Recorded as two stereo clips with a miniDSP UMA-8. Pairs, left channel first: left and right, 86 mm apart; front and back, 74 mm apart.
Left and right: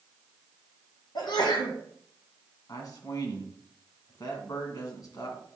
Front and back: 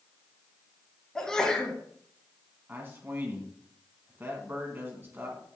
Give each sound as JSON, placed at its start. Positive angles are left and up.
{"t": 1.1, "sound": "a sneeze", "azimuth_deg": 80, "distance_m": 2.0}
{"t": 2.7, "sound": "a man speaking", "azimuth_deg": 125, "distance_m": 2.0}